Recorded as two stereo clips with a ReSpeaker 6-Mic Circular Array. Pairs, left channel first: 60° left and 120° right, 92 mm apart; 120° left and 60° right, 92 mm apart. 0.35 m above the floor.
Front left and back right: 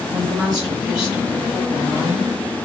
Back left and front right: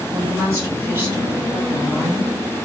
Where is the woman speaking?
35° right, 1.7 m; by 2.3 s 150° right, 1.5 m.